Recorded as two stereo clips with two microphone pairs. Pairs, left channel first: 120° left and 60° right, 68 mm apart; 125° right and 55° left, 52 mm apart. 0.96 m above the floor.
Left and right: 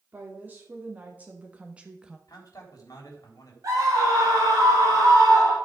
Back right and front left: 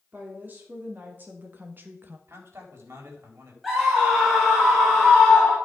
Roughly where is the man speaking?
Left.